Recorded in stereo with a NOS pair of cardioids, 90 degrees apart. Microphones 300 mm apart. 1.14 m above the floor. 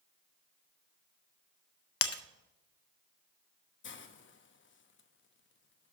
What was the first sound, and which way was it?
Breaking glass, 55° left.